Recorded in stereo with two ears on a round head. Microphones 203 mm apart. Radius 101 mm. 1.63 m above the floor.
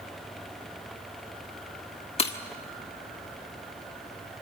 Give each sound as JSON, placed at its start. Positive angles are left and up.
{"t": 2.2, "sound": "breaking glass", "side_deg": 25, "distance_m": 1.3}